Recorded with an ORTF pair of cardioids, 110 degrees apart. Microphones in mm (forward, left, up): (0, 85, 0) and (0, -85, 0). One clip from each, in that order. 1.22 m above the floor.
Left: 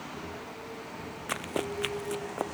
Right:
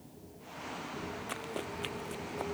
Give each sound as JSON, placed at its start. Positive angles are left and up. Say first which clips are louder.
{"t": 1.3, "sound": "running footsteps", "louder": "left 10 dB", "azimuth_deg": 40}